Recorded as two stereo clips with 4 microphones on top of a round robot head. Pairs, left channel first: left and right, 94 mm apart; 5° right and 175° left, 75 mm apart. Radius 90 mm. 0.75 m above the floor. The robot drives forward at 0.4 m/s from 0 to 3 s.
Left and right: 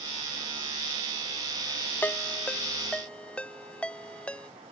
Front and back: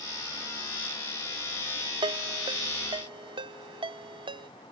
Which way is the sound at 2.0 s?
165° left.